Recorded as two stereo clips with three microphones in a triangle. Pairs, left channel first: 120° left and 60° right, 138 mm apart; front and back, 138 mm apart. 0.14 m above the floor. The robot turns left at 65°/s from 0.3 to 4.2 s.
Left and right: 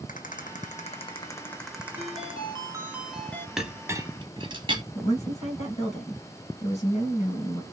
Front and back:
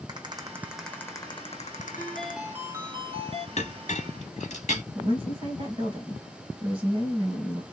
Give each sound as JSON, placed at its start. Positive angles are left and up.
{"t": 0.1, "sound": "a rattle", "azimuth_deg": 125, "distance_m": 1.2}
{"t": 2.0, "sound": "a ringtone", "azimuth_deg": -70, "distance_m": 0.8}
{"t": 3.6, "sound": "a clink", "azimuth_deg": 25, "distance_m": 1.2}
{"t": 5.0, "sound": "a woman speaking", "azimuth_deg": 140, "distance_m": 3.0}